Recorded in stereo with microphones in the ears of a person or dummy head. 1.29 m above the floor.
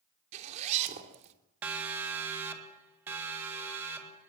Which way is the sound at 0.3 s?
35° right (ahead or behind).